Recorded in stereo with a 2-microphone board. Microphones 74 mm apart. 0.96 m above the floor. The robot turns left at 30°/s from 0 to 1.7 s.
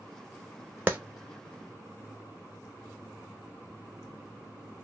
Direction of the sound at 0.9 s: 20° right (ahead or behind).